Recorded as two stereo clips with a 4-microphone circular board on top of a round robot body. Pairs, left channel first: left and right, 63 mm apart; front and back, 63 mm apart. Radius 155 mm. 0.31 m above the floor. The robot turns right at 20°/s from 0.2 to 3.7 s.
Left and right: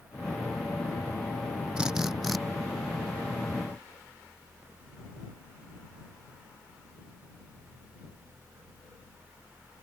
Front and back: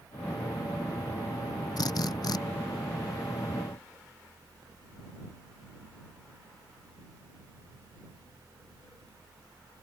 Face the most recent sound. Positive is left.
turn(degrees=25)